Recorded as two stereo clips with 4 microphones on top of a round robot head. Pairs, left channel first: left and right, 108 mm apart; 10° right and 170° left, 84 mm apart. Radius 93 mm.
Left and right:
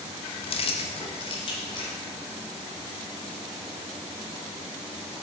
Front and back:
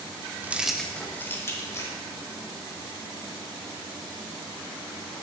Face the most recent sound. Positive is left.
turn(degrees=40)